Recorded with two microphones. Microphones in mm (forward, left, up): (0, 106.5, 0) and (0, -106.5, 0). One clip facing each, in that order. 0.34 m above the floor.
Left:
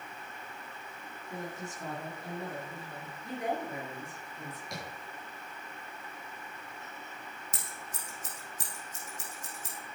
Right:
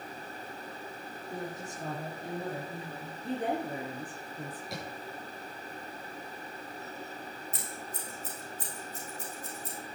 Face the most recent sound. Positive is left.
turn(degrees=80)